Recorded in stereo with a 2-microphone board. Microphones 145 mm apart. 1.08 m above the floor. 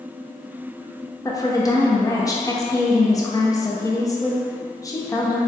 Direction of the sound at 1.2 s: 25° left (ahead or behind).